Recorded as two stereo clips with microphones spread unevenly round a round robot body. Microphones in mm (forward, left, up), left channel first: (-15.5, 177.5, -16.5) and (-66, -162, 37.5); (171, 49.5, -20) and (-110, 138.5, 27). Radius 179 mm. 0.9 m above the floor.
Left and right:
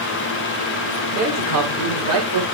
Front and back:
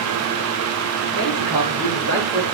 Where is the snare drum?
I don't hear a snare drum.